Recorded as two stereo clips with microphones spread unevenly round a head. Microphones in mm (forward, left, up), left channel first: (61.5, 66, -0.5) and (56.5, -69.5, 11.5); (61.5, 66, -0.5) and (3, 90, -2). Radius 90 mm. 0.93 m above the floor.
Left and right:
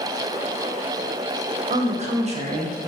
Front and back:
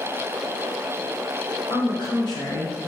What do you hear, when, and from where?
1.7 s a woman speaking: 50° right, 0.9 m